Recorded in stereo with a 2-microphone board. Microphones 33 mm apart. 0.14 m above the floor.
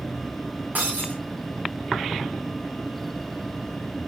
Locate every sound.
0.8 s breaking glass: 60° right (ahead or behind), 5 m